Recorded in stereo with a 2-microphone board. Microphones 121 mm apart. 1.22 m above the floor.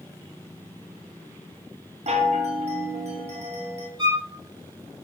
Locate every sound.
2.1 s a chime: 65° right (ahead or behind), 0.7 m
4.0 s a violin: 35° right (ahead or behind), 1.9 m